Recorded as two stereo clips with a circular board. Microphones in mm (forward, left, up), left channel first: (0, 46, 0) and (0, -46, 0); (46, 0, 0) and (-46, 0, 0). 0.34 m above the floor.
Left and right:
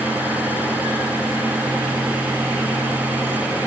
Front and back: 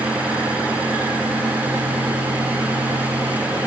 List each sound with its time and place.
Only background noise.